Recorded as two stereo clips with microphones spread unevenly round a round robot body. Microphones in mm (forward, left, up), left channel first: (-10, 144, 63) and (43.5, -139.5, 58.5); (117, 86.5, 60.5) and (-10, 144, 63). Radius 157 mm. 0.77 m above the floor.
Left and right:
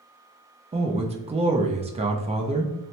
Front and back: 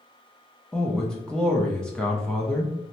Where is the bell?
No bell in this recording.